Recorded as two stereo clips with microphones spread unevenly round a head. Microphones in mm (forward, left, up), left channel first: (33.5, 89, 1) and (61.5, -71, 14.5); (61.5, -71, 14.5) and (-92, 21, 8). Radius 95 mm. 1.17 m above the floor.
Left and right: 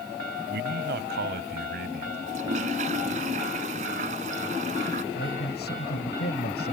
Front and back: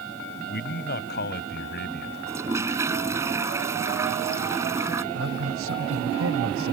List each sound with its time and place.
0.5 s a man speaking: 60° right; by 2.2 s 65° right
2.3 s a toilet flushing: 135° right
5.1 s a man speaking: 140° left